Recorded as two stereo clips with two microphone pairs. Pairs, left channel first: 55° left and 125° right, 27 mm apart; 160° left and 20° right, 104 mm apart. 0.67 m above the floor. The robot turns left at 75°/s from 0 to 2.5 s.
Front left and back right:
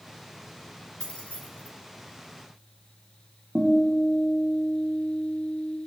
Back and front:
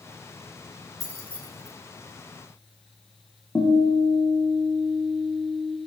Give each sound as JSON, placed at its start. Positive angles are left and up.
{"t": 1.0, "sound": "keys jangling", "azimuth_deg": 105, "distance_m": 2.0}
{"t": 3.5, "sound": "a guitar", "azimuth_deg": -130, "distance_m": 5.5}